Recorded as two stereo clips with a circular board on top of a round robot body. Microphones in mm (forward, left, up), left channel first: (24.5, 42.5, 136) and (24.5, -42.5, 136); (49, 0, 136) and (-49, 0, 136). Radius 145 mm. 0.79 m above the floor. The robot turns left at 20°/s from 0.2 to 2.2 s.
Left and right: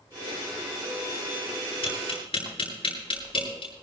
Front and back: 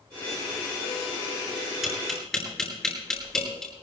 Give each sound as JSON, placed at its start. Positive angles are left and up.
{"t": 1.8, "sound": "tapping", "azimuth_deg": 95, "distance_m": 9.0}